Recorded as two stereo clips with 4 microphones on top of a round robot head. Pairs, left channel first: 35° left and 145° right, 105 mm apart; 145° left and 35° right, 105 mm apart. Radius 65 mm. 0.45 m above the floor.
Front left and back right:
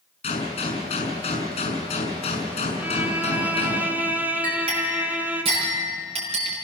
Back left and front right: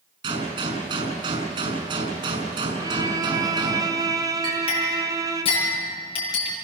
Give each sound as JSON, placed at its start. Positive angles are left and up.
{"t": 0.2, "sound": "a gunshot", "azimuth_deg": 5, "distance_m": 6.0}
{"t": 2.8, "sound": "a violin", "azimuth_deg": -75, "distance_m": 1.8}
{"t": 4.4, "sound": "a clink", "azimuth_deg": 180, "distance_m": 7.0}